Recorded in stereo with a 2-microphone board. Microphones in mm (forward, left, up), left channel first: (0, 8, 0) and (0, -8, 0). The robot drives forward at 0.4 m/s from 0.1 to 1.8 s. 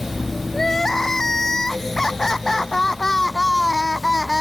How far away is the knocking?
No knocking in this recording.